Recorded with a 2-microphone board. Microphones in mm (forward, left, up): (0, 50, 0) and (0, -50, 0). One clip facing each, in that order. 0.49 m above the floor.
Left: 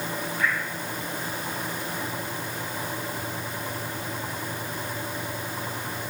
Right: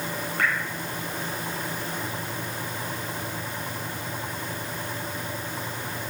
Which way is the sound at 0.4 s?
60° right (ahead or behind).